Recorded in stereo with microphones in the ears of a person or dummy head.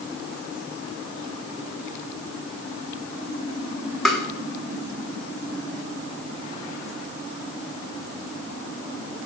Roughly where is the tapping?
Centre.